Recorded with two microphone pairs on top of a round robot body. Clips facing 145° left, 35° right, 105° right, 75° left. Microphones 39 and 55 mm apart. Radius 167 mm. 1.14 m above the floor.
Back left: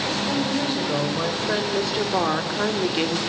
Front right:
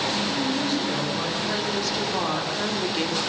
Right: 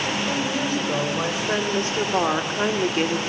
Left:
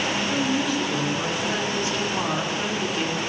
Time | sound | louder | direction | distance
0.3 | a woman speaking | back left 1 dB, left 1 dB | 160° right | 6 m